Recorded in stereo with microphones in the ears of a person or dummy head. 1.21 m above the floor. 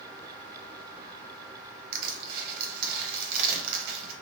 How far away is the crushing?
About 0.9 m.